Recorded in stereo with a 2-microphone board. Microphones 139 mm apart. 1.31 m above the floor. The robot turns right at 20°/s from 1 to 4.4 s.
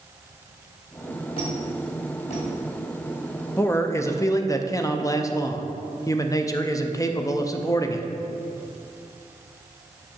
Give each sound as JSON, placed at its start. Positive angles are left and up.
{"t": 1.4, "sound": "a squeak", "side_deg": 40, "distance_m": 2.5}
{"t": 3.6, "sound": "a man speaking", "side_deg": 15, "distance_m": 0.5}